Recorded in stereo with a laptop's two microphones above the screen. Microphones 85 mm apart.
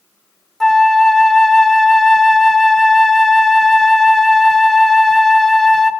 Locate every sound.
0.6 s a flute: 5° left (ahead or behind), 0.8 m